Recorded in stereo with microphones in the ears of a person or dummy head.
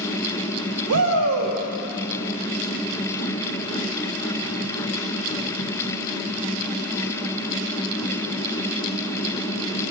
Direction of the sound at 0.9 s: 75° right (ahead or behind).